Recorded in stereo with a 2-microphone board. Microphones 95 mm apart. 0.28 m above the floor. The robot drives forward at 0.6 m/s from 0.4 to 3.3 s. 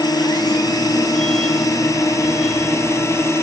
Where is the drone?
45° left (ahead or behind); by 3.4 s 30° left (ahead or behind).